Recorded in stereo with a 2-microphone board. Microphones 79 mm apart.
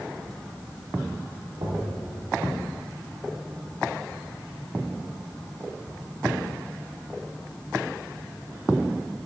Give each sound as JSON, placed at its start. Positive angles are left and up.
{"t": 1.6, "sound": "knocking", "side_deg": -60, "distance_m": 2.5}